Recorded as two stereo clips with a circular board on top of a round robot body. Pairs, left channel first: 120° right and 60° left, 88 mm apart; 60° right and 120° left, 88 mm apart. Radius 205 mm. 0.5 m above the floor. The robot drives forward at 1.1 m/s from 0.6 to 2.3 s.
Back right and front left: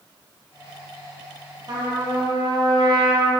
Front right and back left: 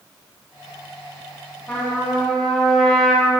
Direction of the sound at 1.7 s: 15° left.